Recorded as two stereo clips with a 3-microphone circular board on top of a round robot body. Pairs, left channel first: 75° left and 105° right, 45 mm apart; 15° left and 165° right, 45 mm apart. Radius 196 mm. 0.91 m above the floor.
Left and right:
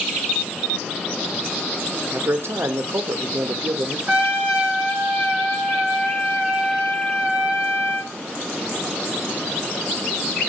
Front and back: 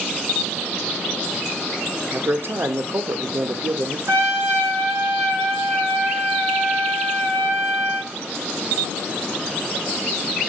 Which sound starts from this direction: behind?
A trumpet, at 4.1 s.